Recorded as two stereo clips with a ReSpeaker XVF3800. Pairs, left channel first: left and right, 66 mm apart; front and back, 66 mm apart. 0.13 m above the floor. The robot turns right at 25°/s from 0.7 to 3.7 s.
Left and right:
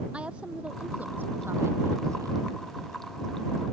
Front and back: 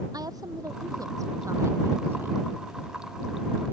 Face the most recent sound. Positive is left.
turn(degrees=-85)